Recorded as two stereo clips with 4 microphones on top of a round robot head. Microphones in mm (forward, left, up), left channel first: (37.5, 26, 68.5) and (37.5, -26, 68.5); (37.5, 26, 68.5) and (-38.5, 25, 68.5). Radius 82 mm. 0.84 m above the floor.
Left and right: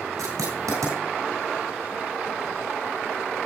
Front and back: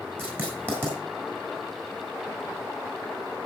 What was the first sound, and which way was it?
Writing, 110° right.